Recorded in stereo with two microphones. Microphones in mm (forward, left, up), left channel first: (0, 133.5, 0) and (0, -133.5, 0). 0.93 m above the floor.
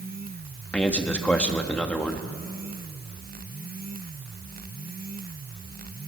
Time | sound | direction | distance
0.7 | a man speaking | 5° left (ahead or behind) | 1.5 m